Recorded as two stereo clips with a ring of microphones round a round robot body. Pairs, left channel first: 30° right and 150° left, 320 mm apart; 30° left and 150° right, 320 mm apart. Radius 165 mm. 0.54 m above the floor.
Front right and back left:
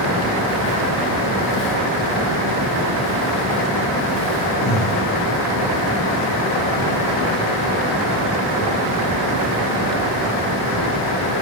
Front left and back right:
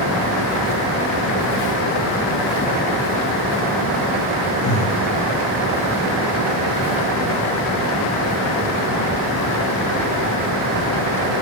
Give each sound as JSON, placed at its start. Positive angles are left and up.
{"t": 4.6, "sound": "breathing", "azimuth_deg": 30, "distance_m": 0.8}